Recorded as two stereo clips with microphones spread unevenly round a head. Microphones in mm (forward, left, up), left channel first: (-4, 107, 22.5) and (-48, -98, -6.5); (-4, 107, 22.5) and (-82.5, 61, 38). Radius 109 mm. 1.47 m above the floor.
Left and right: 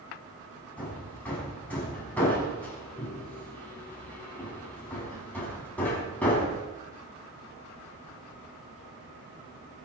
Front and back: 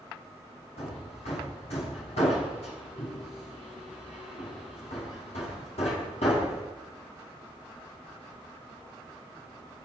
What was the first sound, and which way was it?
Hammering, 5° right.